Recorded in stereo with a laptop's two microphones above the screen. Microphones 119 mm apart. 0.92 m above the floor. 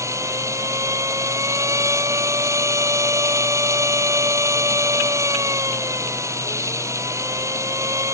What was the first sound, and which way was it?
A machine running, 25° right (ahead or behind).